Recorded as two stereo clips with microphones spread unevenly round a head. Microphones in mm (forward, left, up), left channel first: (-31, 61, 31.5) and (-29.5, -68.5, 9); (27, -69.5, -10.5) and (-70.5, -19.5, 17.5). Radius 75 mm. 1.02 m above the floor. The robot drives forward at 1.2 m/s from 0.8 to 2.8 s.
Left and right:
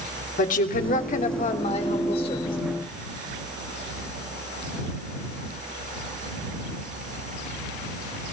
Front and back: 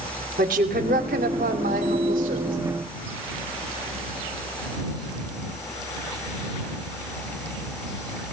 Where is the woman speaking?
115° left, 3 m; by 2.6 s 140° left, 4 m.